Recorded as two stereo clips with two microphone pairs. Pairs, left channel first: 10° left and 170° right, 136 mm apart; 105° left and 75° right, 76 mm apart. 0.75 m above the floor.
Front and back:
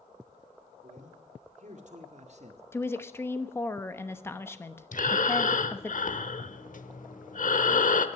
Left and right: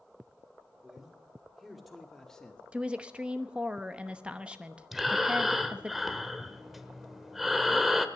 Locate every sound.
0.8 s a man speaking: 155° right, 3 m; by 2.6 s straight behind, 1.5 m
2.7 s a woman speaking: 25° right, 0.8 m
4.9 s breathing: 15° left, 1.0 m